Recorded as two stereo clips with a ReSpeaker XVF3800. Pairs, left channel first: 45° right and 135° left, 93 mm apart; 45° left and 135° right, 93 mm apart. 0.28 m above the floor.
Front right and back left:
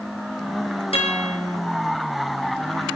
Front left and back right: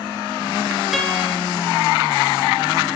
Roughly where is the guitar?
Ahead right.